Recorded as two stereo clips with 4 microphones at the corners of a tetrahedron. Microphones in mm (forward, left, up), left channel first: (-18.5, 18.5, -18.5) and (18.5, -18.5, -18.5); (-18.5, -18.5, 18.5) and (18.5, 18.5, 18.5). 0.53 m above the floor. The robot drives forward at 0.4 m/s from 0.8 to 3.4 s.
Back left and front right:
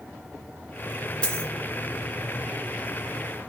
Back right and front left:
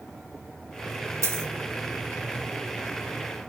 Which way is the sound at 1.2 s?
65° left.